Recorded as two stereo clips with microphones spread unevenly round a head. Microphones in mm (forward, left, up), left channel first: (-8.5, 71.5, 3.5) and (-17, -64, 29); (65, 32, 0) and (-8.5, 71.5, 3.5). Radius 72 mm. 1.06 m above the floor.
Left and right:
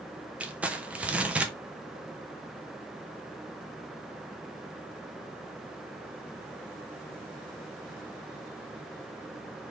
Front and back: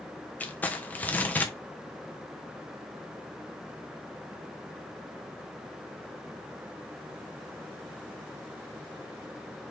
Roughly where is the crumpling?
Ahead.